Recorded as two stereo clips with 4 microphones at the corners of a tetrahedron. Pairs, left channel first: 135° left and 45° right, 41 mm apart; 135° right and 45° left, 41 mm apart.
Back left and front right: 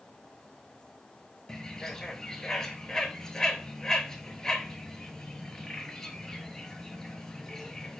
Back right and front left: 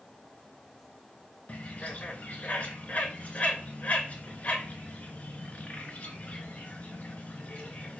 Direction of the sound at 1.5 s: 160° right.